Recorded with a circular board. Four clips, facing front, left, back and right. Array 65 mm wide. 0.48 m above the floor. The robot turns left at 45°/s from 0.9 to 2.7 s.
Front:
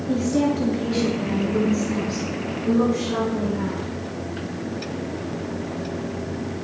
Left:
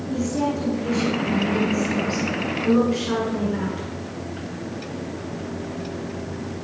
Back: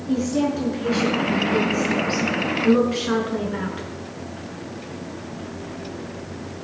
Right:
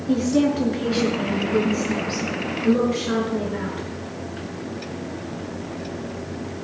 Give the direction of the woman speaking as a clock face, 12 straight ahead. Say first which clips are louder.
Right 5 dB, even; 3 o'clock.